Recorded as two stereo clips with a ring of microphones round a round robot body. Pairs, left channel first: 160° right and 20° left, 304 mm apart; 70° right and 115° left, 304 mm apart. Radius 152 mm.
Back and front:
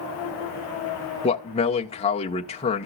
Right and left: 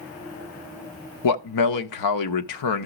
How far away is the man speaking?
About 1.4 m.